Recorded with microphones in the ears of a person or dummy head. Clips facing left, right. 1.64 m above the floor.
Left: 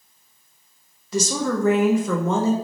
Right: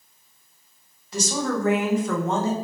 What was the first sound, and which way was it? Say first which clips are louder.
A woman speaking: left 3 dB; 75° left (ahead or behind).